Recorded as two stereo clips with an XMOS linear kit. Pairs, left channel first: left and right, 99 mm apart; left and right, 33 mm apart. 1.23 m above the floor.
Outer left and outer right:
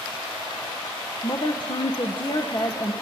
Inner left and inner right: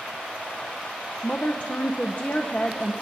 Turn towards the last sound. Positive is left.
turn(degrees=50)  # may be behind; listen again after turning